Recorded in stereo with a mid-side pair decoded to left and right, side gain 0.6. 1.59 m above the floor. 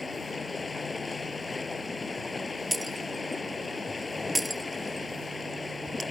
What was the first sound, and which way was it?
Running water, 20° left.